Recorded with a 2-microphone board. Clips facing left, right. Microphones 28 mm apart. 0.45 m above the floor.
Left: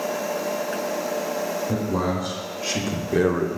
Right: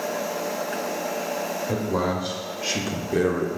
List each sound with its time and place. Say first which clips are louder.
1.7 s a man speaking: right 2 dB; 30° right (ahead or behind), 1.5 m; by 3.6 s 20° left (ahead or behind), 0.9 m